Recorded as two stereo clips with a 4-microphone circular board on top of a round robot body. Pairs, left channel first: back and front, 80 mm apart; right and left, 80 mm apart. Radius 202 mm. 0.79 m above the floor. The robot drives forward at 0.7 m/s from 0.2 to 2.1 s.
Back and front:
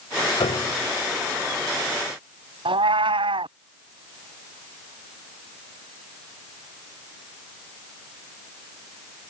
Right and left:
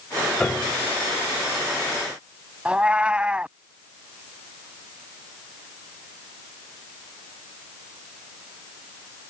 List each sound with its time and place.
0.4 s a piano: 170° right
2.6 s a cat meowing: 15° left